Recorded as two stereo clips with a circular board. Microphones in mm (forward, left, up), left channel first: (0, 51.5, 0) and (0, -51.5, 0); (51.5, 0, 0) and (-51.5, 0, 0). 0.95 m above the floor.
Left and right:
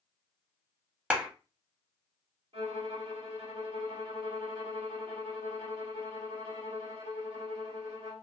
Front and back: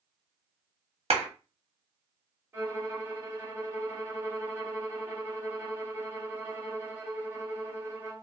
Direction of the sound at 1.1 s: 170° right.